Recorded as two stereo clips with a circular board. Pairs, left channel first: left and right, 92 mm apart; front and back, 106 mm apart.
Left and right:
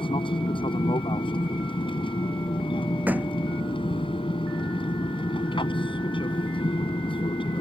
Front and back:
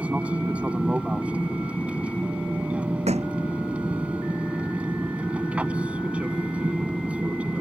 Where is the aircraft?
105° left.